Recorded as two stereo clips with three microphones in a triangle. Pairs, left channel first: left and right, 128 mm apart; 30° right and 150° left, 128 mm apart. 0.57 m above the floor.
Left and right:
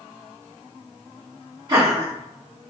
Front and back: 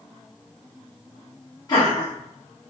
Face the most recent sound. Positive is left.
turn(degrees=-65)